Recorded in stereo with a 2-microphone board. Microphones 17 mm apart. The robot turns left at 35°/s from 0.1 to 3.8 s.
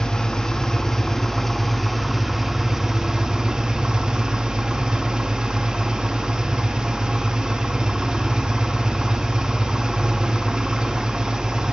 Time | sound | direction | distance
0.0 | an engine running | 60° left | 0.8 m